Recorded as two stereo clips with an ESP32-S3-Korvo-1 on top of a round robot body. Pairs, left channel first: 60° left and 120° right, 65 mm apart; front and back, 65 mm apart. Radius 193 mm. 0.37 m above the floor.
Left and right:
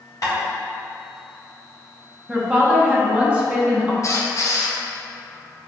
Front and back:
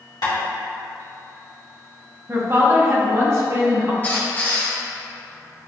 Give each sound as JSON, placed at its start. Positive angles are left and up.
{"t": 0.2, "sound": "tapping", "azimuth_deg": 20, "distance_m": 1.8}
{"t": 2.3, "sound": "a woman speaking", "azimuth_deg": 175, "distance_m": 1.1}
{"t": 4.0, "sound": "a squeak", "azimuth_deg": 55, "distance_m": 1.1}